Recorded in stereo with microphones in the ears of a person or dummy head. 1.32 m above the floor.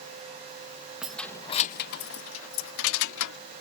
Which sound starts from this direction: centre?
Keys jangling, at 1.0 s.